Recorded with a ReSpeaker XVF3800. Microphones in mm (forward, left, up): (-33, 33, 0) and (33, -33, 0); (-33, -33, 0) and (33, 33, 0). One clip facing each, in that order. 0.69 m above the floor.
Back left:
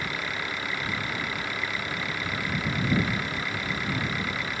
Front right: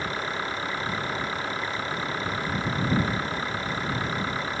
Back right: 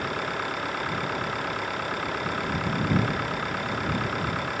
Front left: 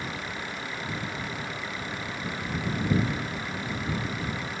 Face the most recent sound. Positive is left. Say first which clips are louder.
# front right 3 dB, back right 6 dB
turn(degrees=-105)